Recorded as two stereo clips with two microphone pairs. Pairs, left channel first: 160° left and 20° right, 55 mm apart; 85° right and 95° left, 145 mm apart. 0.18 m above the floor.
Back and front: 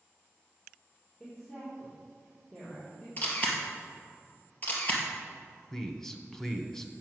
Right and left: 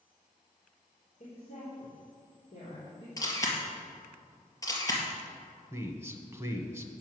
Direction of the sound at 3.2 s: 150° right.